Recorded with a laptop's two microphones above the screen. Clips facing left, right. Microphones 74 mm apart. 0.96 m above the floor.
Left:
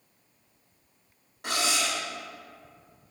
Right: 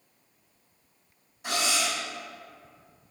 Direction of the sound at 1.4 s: 65° left (ahead or behind).